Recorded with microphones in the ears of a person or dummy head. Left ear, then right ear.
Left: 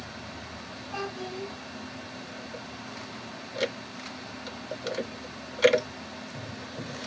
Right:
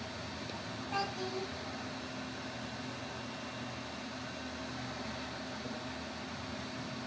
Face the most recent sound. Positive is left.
turn(degrees=-15)  # may be behind; listen again after turning